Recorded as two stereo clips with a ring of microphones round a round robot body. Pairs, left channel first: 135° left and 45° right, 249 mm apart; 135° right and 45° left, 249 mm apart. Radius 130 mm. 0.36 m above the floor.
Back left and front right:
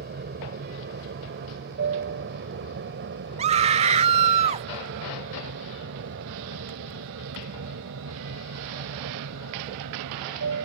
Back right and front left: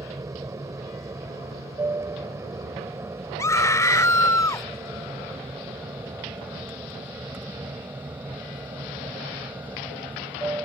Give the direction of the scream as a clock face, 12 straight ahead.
2 o'clock.